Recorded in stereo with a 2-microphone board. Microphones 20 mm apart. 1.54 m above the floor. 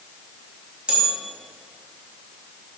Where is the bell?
55° right (ahead or behind), 3 m.